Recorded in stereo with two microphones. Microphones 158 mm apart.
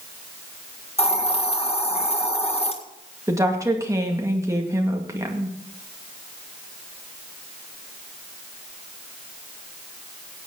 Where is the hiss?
40° left (ahead or behind), 1.7 m.